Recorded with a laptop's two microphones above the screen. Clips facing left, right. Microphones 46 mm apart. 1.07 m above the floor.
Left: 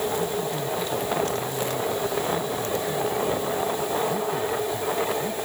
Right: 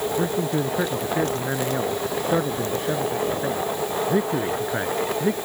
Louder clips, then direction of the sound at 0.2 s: Right 3 dB; 65° right (ahead or behind).